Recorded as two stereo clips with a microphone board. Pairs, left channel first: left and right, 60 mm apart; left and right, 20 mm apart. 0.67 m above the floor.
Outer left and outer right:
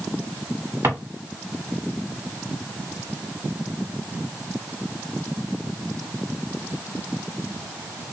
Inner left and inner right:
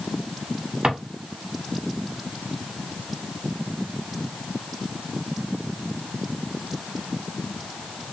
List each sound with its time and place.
0.8 s a drawer: 55° right (ahead or behind), 1.3 m